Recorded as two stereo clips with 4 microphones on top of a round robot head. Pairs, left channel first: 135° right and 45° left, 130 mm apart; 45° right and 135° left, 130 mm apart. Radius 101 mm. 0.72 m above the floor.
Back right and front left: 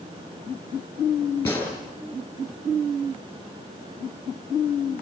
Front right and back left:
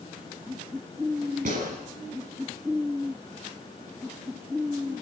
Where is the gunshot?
155° left, 6.5 m.